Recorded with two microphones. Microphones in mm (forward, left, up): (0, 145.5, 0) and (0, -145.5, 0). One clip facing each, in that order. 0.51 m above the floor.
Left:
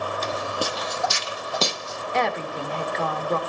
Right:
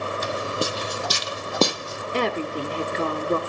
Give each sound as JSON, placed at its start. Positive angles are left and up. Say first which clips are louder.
{"t": 0.2, "sound": "footsteps", "louder": "right 3 dB", "side_deg": -10, "distance_m": 1.1}
{"t": 2.1, "sound": "a woman speaking", "louder": "right 2 dB", "side_deg": -40, "distance_m": 1.6}